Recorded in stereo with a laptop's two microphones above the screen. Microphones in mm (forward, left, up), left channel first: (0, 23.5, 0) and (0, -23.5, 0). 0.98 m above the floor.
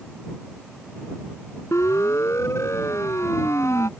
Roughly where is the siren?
Left.